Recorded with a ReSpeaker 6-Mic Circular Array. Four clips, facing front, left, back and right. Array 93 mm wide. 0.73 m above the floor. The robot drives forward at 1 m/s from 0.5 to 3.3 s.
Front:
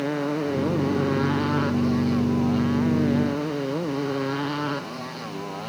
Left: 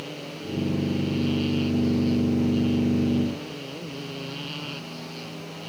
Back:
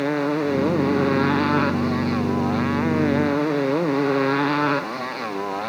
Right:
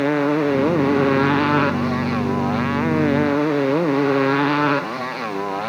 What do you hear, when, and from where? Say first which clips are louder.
0.0 s a motorcycle: right 18 dB, back 4 dB; 105° right; by 5.7 s 115° right